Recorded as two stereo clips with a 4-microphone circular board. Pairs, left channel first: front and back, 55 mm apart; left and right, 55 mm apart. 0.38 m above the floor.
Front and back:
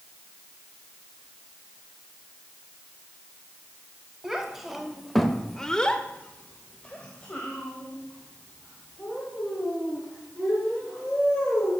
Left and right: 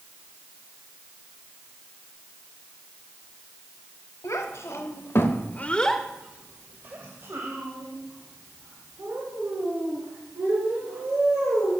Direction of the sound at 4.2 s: 100° left.